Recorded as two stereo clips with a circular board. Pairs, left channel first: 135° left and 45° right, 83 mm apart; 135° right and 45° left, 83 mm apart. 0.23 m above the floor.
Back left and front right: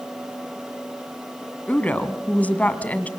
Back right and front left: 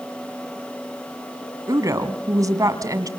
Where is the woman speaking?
70° left, 1.9 m.